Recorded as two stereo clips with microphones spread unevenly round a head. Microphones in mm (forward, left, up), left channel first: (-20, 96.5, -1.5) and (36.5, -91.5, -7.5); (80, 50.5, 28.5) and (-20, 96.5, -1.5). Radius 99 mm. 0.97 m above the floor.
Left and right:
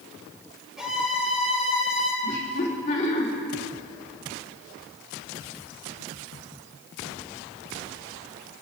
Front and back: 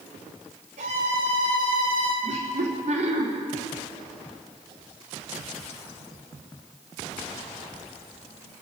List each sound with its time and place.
0.8 s a violin: 160° right, 3.5 m
2.2 s laughter: 165° left, 3 m